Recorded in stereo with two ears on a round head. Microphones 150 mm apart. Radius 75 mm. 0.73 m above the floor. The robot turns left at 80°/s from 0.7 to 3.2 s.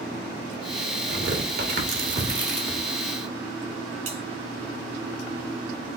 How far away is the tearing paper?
About 1.2 m.